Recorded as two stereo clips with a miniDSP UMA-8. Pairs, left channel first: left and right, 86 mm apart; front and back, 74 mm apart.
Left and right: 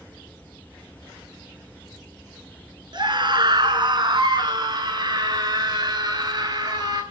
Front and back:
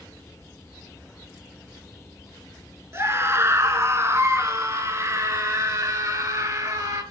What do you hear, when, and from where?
2.9 s a scream: 125° right, 5.5 m; by 7.0 s 135° right, 7 m